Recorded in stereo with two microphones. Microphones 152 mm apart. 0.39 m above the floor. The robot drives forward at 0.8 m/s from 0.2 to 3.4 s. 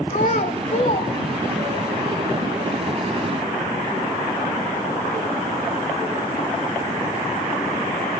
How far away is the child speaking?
About 1.3 m.